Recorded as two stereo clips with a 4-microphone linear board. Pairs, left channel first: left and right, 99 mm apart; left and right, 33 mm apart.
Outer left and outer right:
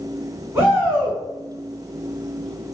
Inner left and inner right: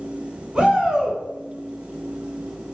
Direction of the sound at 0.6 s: 20° right (ahead or behind).